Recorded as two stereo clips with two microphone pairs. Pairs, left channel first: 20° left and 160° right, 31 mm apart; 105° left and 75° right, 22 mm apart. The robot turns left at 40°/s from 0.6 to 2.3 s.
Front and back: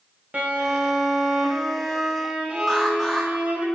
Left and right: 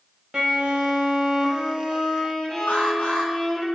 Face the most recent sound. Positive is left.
turn(degrees=100)